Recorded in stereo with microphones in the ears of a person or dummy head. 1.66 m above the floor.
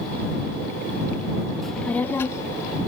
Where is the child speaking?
Centre (ahead or behind); by 2.8 s 25° left (ahead or behind).